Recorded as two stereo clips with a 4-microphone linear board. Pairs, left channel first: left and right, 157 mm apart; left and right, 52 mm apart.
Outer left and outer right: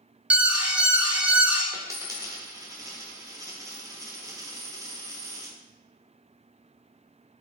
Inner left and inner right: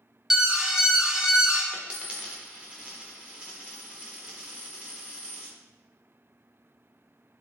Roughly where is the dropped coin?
Centre.